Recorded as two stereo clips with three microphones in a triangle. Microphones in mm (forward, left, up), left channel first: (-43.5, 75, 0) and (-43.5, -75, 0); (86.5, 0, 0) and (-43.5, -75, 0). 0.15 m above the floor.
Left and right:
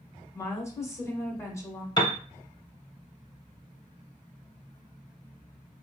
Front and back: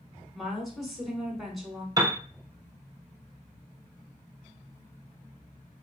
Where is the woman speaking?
120° left, 1.1 m.